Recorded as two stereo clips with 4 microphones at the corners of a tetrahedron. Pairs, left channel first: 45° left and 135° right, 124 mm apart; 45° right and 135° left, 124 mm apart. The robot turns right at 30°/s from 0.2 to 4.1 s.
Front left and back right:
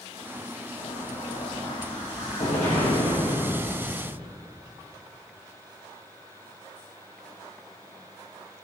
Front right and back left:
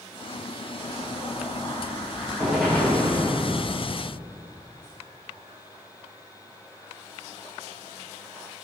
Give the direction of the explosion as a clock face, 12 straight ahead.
12 o'clock.